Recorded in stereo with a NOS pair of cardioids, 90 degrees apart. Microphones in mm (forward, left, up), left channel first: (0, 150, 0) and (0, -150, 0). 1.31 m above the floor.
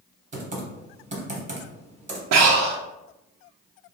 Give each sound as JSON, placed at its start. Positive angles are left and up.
{"t": 0.3, "sound": "typing on a keyboard", "azimuth_deg": -25, "distance_m": 1.0}
{"t": 2.3, "sound": "breathing", "azimuth_deg": -60, "distance_m": 0.6}